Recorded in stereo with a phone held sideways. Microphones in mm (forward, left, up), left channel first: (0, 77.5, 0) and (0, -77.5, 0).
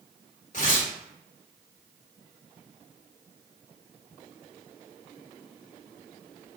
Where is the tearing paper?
55° left (ahead or behind), 1.3 m.